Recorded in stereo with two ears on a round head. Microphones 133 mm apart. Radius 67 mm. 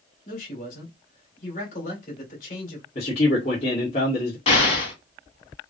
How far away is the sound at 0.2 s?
About 2.5 m.